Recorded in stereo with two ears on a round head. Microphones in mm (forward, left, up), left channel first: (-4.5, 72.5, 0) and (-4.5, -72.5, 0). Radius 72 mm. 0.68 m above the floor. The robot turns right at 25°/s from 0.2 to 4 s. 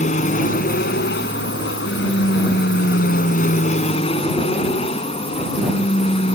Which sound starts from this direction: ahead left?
An aircraft, at 0.0 s.